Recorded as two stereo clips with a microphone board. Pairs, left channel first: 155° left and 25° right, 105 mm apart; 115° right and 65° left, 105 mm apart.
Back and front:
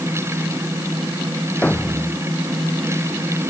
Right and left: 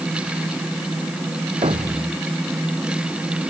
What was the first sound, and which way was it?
A thud, 80° left.